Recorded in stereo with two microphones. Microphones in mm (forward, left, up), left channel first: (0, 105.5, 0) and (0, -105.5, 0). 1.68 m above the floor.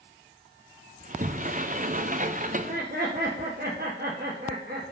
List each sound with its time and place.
1.0 s a sliding door: 40° right (ahead or behind), 0.5 m
2.5 s laughter: 45° right (ahead or behind), 1.3 m